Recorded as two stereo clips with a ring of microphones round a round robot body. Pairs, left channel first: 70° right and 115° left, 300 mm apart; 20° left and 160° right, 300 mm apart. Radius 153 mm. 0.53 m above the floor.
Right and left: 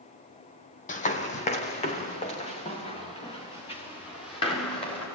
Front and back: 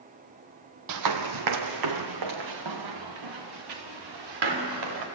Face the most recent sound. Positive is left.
turn(degrees=-140)